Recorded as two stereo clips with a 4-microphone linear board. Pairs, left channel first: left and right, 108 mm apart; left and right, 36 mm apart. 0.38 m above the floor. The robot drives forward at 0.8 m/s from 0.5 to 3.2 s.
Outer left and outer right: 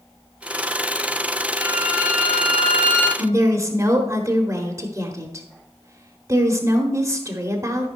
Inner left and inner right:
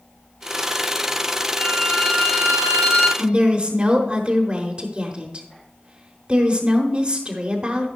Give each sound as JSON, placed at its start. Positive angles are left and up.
{"t": 1.6, "sound": "a violin", "side_deg": 80, "distance_m": 3.0}
{"t": 3.2, "sound": "a woman speaking", "side_deg": -30, "distance_m": 1.0}